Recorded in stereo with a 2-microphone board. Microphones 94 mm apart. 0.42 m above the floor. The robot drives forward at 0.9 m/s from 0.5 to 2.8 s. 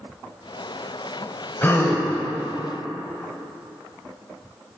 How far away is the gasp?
About 0.9 m.